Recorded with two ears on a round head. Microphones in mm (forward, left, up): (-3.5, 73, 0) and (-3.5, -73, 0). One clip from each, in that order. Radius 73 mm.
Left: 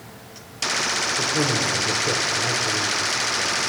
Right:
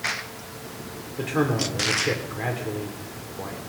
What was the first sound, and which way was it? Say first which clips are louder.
A man speaking: left 4 dB; 50° right (ahead or behind).